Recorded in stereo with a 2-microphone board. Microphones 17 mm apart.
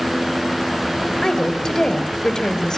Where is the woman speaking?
40° left (ahead or behind), 3 m.